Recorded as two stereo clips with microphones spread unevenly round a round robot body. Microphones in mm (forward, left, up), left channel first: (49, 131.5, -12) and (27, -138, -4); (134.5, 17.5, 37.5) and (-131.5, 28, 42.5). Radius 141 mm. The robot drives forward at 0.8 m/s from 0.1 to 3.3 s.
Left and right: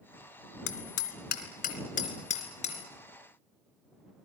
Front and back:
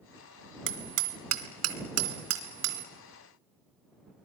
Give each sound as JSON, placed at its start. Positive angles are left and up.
{"t": 0.7, "sound": "hammering", "azimuth_deg": 135, "distance_m": 2.0}